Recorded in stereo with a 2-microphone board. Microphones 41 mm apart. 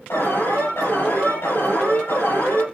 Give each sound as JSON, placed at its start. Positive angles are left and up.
{"t": 0.1, "sound": "an alarm", "side_deg": 85, "distance_m": 7.5}